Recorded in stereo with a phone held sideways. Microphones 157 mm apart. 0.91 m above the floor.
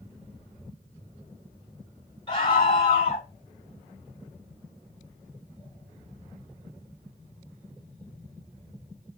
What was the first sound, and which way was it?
A scream, 35° left (ahead or behind).